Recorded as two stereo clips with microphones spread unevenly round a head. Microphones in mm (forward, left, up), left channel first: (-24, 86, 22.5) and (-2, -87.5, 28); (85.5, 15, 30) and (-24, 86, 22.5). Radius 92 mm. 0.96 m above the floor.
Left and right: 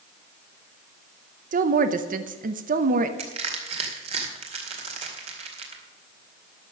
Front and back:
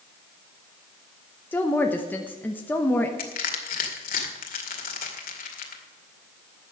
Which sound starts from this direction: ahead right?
Crushing, at 3.2 s.